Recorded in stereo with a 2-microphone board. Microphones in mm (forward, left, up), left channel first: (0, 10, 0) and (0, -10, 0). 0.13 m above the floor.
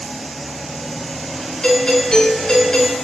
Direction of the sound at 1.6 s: 40° left (ahead or behind).